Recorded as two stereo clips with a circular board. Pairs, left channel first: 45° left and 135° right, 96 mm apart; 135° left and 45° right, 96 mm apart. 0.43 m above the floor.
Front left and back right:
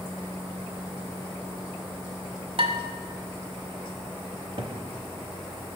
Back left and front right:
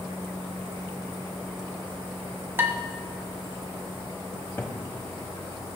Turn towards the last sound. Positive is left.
turn(degrees=-160)